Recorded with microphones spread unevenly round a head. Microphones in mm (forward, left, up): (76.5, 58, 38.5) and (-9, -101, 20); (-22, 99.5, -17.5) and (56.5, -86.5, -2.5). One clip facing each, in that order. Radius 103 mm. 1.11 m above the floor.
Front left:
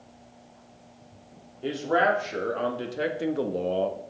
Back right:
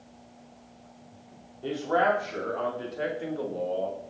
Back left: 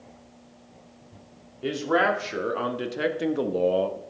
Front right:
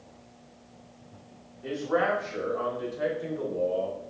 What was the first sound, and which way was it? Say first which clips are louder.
A man speaking: front left 1 dB, back left 3 dB; 135° left.